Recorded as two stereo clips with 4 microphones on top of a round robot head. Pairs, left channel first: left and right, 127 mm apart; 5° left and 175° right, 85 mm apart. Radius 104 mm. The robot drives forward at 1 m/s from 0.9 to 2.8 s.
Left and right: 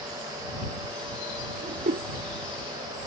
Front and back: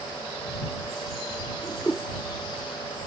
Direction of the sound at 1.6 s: 70° right.